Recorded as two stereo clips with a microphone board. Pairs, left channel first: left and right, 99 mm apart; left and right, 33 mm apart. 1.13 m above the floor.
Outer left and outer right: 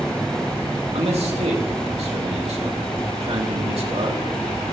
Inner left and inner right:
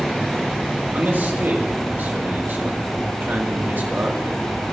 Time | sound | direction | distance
0.9 | a man speaking | 75° right (ahead or behind) | 2.5 m